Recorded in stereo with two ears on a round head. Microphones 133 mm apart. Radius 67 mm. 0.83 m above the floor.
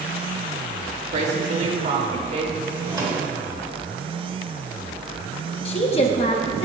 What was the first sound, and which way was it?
A woman speaking, 45° right (ahead or behind).